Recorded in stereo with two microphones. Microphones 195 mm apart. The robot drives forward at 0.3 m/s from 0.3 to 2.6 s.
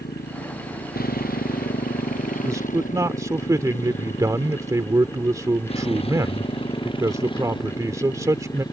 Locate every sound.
0.0 s a motorcycle: 55° left (ahead or behind); by 8.7 s 20° left (ahead or behind)
2.4 s a man speaking: 15° right (ahead or behind)